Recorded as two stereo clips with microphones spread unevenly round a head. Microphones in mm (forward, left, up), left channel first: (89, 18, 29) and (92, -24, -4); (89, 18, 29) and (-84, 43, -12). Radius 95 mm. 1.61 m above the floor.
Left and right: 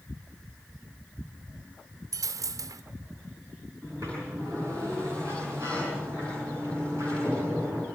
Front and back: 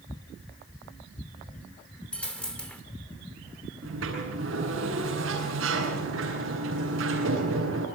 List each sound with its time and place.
2.1 s a dropped coin: 70° right, 1.5 m
3.8 s a sliding door: 160° right, 9.5 m